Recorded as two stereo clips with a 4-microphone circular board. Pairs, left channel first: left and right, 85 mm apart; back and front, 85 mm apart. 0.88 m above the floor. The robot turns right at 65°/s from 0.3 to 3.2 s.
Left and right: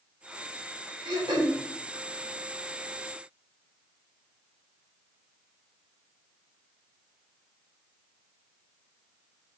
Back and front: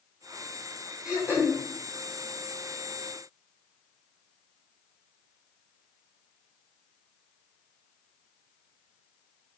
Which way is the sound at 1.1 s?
85° right.